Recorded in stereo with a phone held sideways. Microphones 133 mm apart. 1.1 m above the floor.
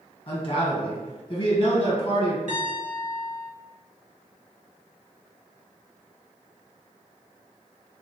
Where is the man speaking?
35° left (ahead or behind), 1.0 m.